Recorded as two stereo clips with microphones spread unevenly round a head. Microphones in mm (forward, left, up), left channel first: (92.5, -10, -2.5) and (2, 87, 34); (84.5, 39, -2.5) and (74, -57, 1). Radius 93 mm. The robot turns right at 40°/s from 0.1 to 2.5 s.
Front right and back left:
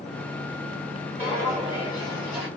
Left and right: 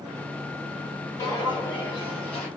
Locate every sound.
1.2 s footsteps: 115° left, 1.7 m; by 2.5 s 170° left, 2 m